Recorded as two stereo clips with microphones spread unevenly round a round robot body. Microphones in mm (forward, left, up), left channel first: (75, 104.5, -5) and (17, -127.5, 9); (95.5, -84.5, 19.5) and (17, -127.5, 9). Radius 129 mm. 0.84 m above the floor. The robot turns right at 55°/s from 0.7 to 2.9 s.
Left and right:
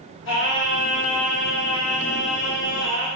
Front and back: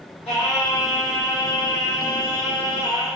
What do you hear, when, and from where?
0.2 s singing: 40° left, 2.5 m; by 3.1 s 160° left, 2.5 m